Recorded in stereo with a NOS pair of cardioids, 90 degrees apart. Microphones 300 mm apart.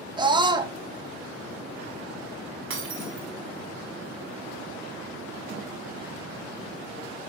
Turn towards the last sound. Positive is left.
turn(degrees=-45)